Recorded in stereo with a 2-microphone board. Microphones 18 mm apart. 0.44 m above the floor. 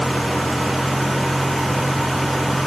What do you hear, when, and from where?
0.0 s a vehicle: 15° right (ahead or behind); by 2.7 s 10° right (ahead or behind)